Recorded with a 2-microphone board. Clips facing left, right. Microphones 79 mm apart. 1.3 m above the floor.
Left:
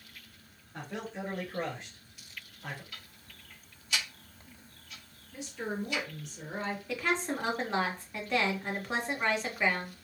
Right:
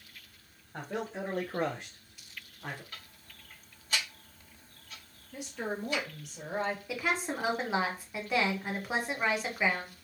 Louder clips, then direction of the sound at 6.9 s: Left 1 dB; 10° right (ahead or behind).